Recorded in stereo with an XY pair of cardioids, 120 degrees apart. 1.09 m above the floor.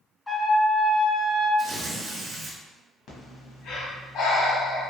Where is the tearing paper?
45° right, 1.1 m.